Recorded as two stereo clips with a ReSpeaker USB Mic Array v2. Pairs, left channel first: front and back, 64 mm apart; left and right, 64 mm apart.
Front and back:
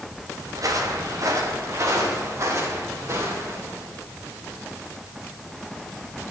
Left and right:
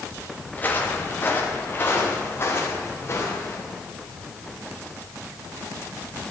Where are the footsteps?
155° left, 3 m; by 3.6 s 140° left, 5.5 m.